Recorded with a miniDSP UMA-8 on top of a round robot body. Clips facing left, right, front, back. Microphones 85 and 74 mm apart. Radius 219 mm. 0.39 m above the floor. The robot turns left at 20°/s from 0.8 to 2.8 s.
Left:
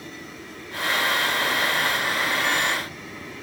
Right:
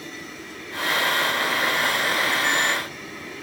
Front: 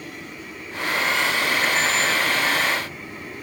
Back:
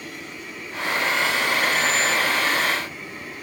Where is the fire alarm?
I don't hear a fire alarm.